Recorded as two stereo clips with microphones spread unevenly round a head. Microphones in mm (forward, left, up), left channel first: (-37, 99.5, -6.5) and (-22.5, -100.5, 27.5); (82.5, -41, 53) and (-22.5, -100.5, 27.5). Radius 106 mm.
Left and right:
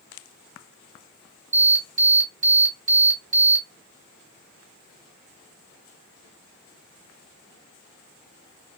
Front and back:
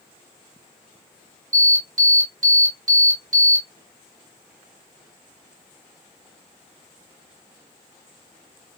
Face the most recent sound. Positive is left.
turn(degrees=-130)